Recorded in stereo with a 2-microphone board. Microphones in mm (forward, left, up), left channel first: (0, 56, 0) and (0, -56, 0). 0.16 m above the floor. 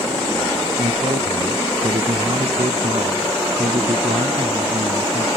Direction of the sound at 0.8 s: 75° right (ahead or behind).